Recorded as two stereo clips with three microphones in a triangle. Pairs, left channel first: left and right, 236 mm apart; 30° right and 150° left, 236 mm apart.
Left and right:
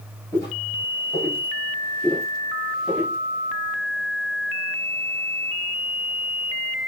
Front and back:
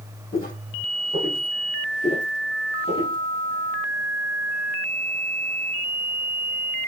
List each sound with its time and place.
0.3 s footsteps: 15° left, 2.5 m; by 3.2 s 25° right, 1.1 m